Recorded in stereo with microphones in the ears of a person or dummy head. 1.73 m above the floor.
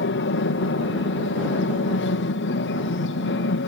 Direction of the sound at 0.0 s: 60° left (ahead or behind).